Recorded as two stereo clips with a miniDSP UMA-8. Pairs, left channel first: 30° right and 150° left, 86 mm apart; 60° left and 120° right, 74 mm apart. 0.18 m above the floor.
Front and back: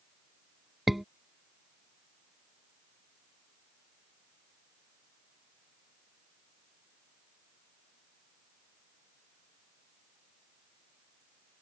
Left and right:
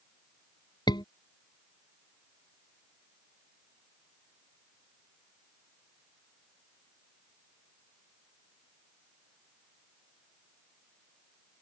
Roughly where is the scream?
Ahead left.